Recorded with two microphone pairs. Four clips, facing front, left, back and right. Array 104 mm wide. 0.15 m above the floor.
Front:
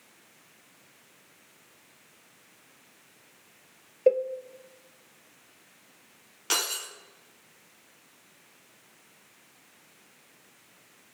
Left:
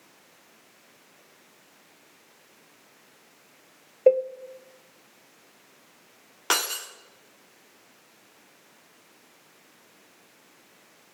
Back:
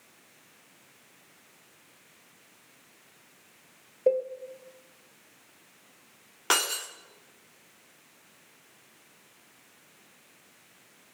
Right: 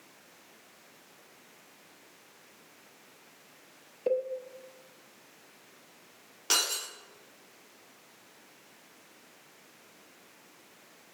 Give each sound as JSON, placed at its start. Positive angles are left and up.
{"t": 4.1, "sound": "a cowbell", "azimuth_deg": 75, "distance_m": 1.3}
{"t": 6.5, "sound": "breaking glass", "azimuth_deg": 130, "distance_m": 5.5}